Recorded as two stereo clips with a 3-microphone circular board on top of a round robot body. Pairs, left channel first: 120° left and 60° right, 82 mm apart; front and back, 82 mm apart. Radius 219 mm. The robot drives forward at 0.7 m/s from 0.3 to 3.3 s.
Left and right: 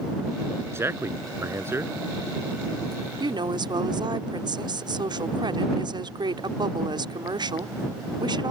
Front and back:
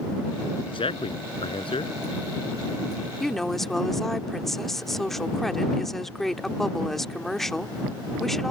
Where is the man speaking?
Straight ahead.